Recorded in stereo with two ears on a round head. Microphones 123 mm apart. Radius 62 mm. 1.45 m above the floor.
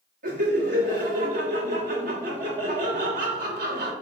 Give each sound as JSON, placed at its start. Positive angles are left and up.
{"t": 0.2, "sound": "laughter", "side_deg": -70, "distance_m": 1.3}